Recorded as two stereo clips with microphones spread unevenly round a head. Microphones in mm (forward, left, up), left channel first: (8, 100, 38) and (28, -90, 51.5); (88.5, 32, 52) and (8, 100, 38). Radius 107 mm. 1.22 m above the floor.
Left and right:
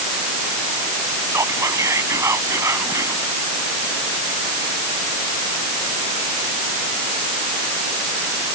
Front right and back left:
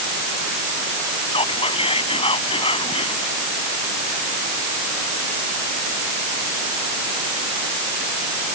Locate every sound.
1.3 s whispering: 10° right